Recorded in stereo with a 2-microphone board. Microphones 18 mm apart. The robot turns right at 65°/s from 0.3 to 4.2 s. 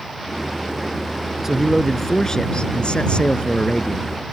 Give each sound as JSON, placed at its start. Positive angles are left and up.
{"t": 1.4, "sound": "a man speaking", "azimuth_deg": -15}